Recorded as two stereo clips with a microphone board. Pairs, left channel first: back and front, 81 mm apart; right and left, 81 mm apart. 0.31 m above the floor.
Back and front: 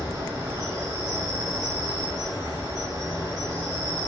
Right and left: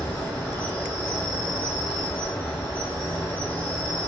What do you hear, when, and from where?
0.0 s an insect: 25° right, 1.4 m